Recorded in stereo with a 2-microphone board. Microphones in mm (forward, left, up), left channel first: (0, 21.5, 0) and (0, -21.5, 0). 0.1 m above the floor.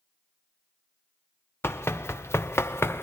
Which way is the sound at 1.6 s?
70° left (ahead or behind).